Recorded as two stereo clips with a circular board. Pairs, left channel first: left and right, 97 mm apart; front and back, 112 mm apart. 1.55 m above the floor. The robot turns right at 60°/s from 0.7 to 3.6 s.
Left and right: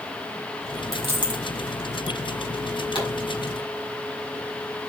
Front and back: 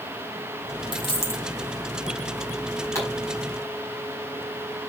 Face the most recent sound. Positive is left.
turn(degrees=105)